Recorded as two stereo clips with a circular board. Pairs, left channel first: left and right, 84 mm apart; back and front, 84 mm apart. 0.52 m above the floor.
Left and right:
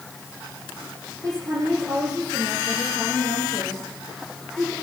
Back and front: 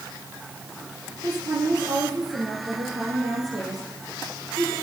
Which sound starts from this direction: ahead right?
A woman speaking, at 1.2 s.